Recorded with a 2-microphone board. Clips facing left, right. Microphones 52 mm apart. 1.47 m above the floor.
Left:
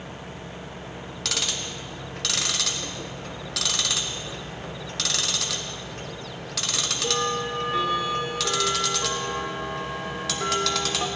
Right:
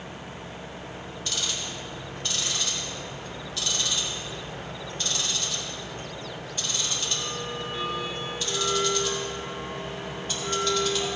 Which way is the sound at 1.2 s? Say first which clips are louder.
Left 3 dB; 85° left.